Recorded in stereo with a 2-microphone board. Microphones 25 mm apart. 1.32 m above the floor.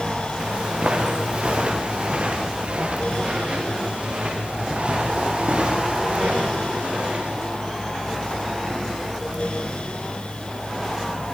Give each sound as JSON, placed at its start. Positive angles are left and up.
{"t": 0.4, "sound": "footsteps", "side_deg": -50, "distance_m": 5.5}